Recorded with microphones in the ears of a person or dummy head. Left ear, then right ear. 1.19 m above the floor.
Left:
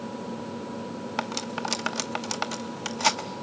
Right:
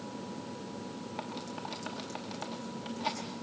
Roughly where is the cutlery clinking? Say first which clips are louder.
Left 11 dB; left.